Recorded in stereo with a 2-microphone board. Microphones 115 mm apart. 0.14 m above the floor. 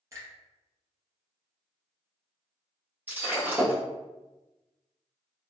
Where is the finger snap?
30° right (ahead or behind), 1.9 m.